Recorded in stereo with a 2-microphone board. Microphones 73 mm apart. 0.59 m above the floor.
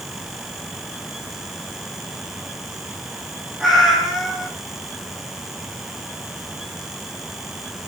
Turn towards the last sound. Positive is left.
turn(degrees=-5)  # may be behind; listen again after turning